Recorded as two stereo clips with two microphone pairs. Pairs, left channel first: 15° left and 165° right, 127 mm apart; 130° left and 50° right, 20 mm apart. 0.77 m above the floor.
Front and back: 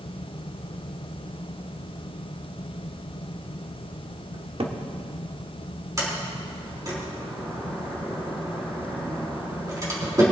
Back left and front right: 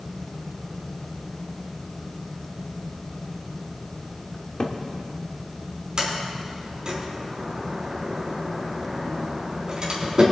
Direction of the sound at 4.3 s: 160° left.